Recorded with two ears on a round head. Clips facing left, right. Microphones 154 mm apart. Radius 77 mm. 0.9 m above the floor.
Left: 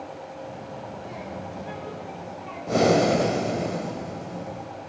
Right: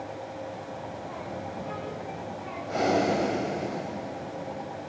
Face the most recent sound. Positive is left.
turn(degrees=60)  # may be behind; listen again after turning